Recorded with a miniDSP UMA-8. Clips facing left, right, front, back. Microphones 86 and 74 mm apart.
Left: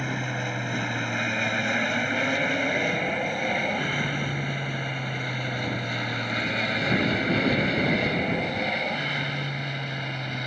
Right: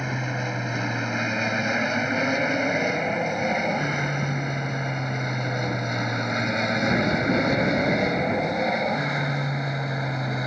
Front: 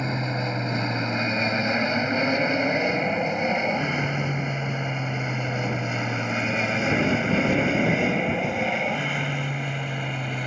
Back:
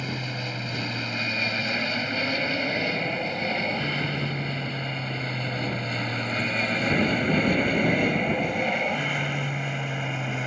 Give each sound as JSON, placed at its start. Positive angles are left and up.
{"t": 0.0, "sound": "an aircraft", "azimuth_deg": -15}